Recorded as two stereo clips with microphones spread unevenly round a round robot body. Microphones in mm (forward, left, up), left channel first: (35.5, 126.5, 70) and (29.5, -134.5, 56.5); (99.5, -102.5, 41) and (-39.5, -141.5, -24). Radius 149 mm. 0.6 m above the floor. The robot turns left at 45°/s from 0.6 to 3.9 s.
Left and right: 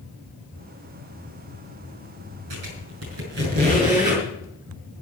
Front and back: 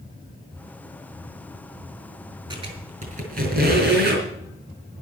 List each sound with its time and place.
2.5 s a squeak: 105° right, 5.5 m; by 4.2 s 170° right, 5.5 m